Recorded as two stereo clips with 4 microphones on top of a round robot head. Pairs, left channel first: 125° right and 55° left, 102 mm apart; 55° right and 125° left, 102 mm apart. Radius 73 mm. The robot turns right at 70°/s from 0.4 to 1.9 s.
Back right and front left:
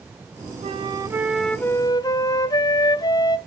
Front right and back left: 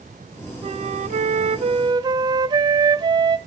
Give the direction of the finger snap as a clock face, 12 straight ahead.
No finger snap in this recording.